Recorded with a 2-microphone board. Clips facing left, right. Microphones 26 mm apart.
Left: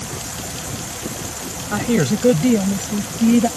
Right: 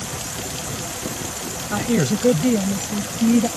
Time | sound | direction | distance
1.7 | a woman speaking | 10° left (ahead or behind) | ?